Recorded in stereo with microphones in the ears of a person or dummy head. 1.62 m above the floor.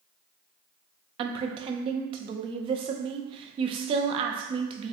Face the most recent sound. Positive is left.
turn(degrees=-35)  # may be behind; listen again after turning